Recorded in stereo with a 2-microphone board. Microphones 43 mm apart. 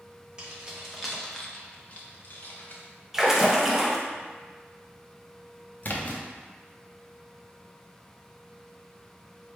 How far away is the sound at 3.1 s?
About 0.6 m.